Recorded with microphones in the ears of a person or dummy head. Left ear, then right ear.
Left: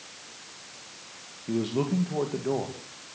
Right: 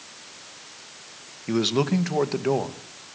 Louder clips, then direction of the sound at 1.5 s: Right 6 dB; 45° right (ahead or behind).